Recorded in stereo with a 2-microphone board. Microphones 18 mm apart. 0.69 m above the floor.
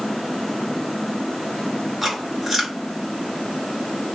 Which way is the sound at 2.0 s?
20° right (ahead or behind).